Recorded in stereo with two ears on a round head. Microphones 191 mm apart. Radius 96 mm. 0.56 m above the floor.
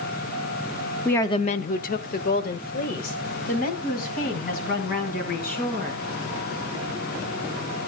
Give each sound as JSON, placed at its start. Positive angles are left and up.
{"t": 1.1, "sound": "a woman speaking", "side_deg": 5, "distance_m": 0.6}